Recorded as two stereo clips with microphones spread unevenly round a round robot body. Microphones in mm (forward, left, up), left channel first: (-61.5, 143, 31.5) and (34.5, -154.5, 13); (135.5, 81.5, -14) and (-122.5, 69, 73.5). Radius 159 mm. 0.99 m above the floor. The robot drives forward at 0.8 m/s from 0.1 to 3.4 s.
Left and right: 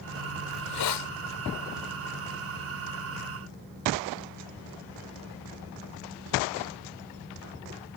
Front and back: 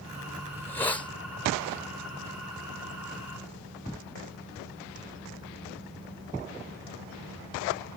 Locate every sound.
0.5 s a hiss: 80° left; by 1.1 s 85° left